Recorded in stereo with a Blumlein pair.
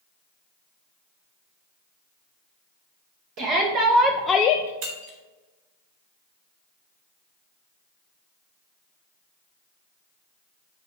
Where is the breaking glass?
45° right, 2.5 m.